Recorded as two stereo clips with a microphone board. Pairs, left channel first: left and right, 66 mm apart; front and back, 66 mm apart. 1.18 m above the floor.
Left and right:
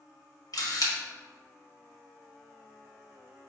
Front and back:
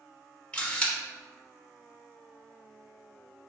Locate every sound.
0.5 s a camera shutter: 70° left, 1.0 m